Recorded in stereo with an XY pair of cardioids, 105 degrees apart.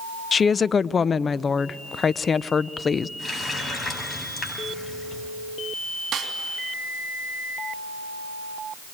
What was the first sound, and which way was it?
A woman speaking, 35° left.